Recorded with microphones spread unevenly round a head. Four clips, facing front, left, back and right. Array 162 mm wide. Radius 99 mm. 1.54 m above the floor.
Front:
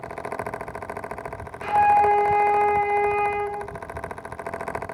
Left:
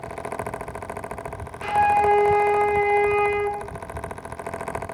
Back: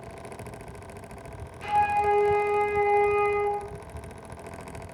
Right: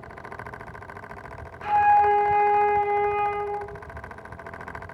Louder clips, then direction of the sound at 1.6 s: Even, front 6 dB; 55° left.